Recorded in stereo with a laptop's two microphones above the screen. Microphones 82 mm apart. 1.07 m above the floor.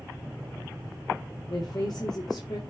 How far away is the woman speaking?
About 2 m.